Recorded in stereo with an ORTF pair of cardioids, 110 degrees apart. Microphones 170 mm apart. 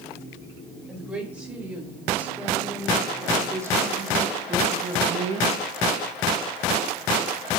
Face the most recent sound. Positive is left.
turn(degrees=-55)